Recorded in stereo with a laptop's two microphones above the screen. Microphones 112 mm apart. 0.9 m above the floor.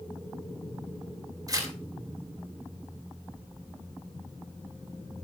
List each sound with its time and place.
1.5 s tearing paper: 35° right (ahead or behind), 2.5 m